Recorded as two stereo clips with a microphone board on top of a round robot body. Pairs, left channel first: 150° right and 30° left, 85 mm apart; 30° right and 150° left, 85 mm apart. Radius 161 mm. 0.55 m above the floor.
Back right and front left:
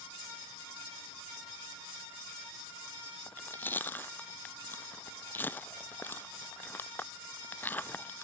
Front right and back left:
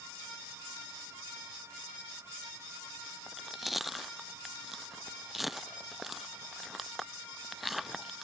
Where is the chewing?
125° right.